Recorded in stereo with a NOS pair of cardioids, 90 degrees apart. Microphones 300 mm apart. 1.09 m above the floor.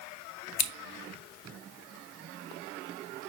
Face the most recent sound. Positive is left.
turn(degrees=65)